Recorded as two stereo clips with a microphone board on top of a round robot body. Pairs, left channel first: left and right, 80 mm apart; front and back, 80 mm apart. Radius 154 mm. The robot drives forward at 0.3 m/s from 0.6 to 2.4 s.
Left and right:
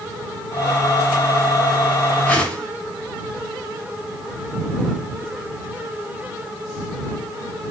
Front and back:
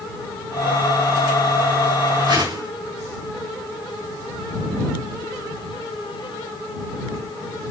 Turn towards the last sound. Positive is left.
turn(degrees=165)